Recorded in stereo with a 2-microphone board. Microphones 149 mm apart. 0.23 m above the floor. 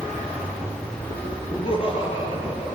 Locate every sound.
1.5 s laughter: 40° left (ahead or behind), 6.5 m; by 2.8 s 35° left (ahead or behind), 5.5 m